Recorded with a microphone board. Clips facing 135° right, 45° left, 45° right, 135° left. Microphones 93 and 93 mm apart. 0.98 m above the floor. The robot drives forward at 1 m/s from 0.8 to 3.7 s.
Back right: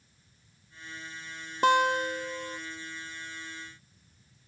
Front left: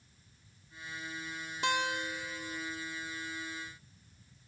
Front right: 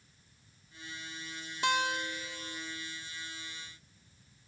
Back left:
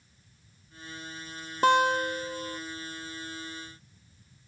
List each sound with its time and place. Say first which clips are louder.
1.6 s a guitar: back right 10 dB, back left 9 dB; 175° right; by 2.6 s straight behind